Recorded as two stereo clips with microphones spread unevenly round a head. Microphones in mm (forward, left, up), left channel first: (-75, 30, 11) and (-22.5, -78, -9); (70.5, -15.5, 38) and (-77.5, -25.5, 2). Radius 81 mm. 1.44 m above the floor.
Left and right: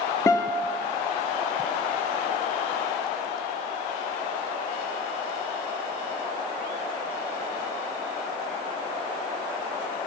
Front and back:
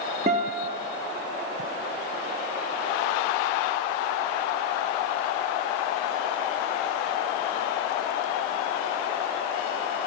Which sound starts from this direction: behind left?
A guitar, at 0.3 s.